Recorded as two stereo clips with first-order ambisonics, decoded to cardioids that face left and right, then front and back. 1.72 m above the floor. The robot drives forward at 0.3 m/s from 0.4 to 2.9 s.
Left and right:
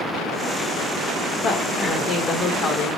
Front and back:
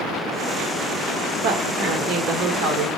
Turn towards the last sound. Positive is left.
turn(degrees=165)